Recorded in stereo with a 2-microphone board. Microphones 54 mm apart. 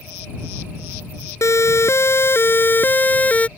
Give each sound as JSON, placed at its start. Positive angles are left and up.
{"t": 1.4, "sound": "a siren", "side_deg": 60}